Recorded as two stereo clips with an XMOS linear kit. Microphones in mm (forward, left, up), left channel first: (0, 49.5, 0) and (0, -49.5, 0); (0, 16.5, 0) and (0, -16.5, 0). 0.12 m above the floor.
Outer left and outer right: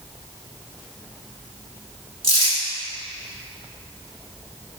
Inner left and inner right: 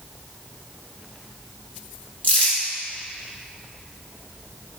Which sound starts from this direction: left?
Crumpling, at 2.2 s.